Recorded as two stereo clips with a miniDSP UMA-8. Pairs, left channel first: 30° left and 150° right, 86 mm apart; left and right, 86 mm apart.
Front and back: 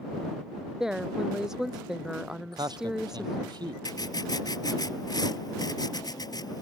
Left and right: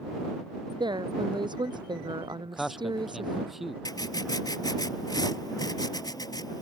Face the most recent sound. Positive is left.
turn(degrees=60)